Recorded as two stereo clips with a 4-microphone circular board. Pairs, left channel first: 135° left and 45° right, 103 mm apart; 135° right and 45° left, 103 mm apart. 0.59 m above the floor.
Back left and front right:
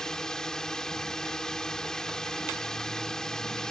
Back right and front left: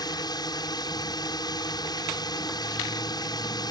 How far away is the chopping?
No chopping in this recording.